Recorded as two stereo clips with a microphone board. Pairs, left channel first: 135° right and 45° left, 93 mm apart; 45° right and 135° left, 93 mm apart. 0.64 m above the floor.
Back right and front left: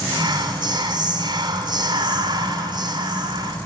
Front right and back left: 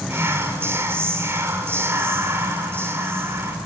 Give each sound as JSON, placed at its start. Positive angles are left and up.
{"t": 0.1, "sound": "whispering", "azimuth_deg": 75, "distance_m": 2.5}